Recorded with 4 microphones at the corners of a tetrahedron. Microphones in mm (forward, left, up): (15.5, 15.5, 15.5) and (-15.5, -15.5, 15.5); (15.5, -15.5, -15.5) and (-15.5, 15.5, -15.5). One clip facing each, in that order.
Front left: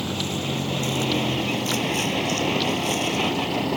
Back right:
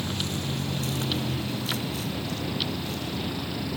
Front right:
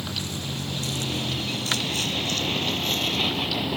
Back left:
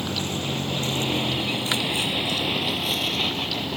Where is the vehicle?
85° left; by 3.8 s 40° left.